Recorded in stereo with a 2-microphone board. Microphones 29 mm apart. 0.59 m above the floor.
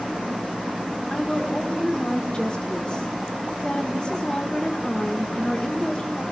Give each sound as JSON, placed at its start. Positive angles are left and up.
{"t": 1.1, "sound": "a woman speaking", "side_deg": 35, "distance_m": 1.6}